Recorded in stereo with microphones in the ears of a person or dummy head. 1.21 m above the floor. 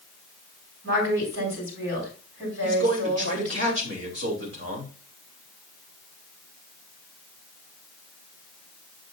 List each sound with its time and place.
0.8 s a woman speaking: 80° right, 6.5 m
2.6 s a man speaking: 65° right (ahead or behind), 3 m